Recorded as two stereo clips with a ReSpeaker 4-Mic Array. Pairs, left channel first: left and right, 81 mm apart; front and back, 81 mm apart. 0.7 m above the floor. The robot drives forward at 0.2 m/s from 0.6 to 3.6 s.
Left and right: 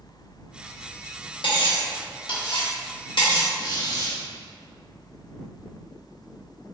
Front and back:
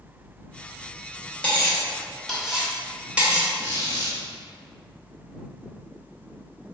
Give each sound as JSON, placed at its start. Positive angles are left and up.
{"t": 1.4, "sound": "cutlery clinking", "azimuth_deg": 75, "distance_m": 0.7}
{"t": 3.6, "sound": "a squeak", "azimuth_deg": 125, "distance_m": 0.8}